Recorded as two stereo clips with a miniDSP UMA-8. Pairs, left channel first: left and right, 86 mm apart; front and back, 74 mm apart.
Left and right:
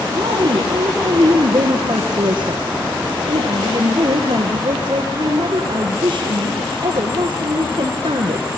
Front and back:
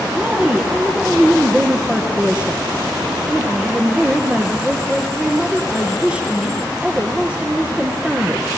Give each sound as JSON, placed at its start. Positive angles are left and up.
{"t": 0.1, "sound": "a woman speaking", "azimuth_deg": -105, "distance_m": 3.5}